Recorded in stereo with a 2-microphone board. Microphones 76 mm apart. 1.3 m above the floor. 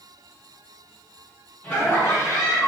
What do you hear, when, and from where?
1.6 s laughter: 20° left (ahead or behind), 1.5 m; by 2.7 s 50° left (ahead or behind), 1.4 m